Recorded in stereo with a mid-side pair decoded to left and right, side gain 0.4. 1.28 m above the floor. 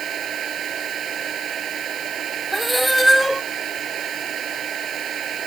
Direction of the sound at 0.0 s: 60° right.